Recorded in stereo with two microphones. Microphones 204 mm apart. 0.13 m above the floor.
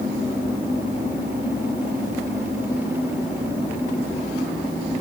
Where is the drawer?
I don't hear a drawer.